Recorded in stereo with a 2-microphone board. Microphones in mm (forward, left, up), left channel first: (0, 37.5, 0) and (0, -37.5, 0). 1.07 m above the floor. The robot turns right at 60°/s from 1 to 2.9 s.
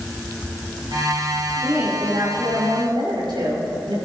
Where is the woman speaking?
165° right, 5.5 m; by 4.0 s 90° right, 5.5 m.